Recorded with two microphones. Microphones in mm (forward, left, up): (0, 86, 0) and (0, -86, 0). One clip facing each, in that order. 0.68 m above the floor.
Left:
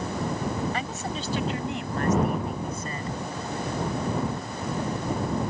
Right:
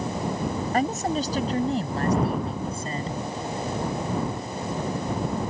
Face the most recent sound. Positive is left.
turn(degrees=-30)  # may be behind; listen again after turning